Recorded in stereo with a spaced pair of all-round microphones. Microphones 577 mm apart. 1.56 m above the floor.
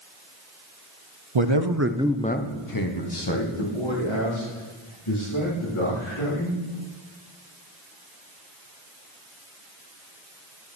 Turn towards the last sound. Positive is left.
turn(degrees=65)  # may be behind; listen again after turning